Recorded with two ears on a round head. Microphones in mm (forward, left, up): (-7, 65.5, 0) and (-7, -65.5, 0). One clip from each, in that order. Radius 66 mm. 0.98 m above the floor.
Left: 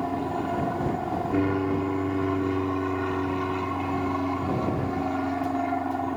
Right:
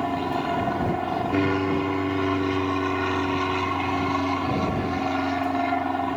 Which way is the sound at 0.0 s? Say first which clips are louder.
Right 3 dB; 65° right (ahead or behind).